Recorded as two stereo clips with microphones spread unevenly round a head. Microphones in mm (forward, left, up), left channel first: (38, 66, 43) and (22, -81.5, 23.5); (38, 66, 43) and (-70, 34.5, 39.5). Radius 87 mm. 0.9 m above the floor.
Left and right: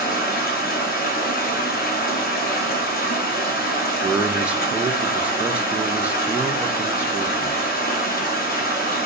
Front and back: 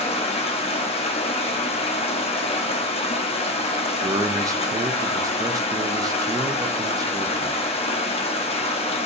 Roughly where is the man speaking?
Behind right.